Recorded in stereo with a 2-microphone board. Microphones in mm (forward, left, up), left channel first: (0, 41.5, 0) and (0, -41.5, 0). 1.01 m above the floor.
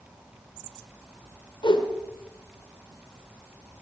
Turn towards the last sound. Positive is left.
turn(degrees=70)  # may be behind; listen again after turning